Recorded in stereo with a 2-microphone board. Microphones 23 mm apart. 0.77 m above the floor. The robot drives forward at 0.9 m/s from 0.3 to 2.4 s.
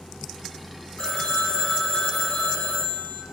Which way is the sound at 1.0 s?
65° left (ahead or behind).